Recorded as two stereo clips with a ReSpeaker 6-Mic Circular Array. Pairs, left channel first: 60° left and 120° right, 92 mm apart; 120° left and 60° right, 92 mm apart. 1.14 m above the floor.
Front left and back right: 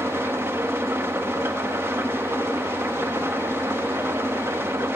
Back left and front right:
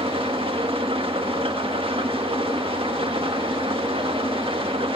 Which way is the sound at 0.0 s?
55° right.